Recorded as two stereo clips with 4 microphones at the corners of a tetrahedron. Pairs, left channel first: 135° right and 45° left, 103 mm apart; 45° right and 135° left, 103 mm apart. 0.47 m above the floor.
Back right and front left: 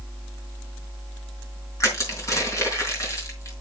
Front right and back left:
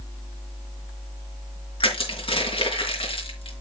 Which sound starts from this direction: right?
Crushing, at 1.8 s.